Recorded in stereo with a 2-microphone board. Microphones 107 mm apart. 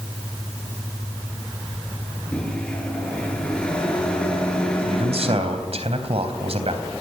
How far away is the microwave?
About 8.5 m.